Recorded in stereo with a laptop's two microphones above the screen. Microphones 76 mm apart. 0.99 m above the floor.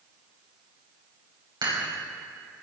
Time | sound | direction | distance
1.6 | dishes clattering | 75° right (ahead or behind) | 3.5 m